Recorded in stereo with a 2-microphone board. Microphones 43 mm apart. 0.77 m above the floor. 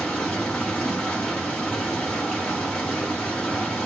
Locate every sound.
0.0 s running water: 25° left (ahead or behind), 1.2 m